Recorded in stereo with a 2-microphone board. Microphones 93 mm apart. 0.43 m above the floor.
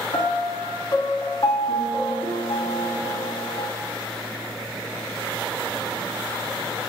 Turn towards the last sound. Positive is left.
turn(degrees=65)  # may be behind; listen again after turning